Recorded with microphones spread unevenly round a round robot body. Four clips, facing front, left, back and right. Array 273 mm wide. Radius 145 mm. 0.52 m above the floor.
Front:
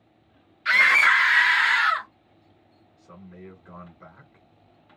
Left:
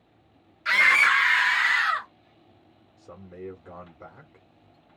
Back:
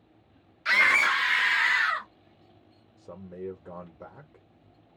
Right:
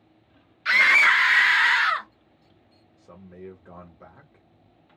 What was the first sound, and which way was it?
A scream, 170° right.